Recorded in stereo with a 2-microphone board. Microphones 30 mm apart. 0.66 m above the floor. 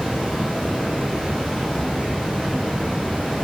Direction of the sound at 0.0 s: 45° right (ahead or behind).